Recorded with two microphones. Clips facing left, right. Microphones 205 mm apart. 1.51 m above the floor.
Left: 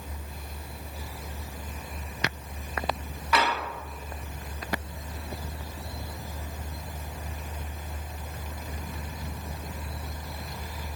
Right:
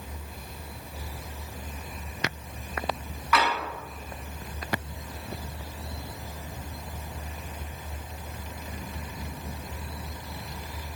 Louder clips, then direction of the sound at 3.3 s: Even; 30° left (ahead or behind).